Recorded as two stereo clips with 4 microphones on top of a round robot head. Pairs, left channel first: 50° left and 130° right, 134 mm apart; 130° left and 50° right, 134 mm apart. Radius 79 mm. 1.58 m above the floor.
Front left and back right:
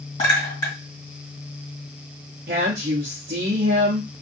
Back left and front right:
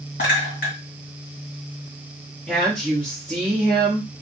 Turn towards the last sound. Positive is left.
turn(degrees=-145)